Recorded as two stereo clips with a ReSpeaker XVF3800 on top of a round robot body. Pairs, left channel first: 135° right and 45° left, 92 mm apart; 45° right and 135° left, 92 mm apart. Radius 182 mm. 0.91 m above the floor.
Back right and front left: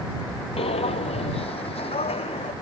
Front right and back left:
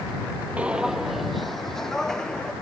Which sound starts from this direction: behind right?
Footsteps, at 0.6 s.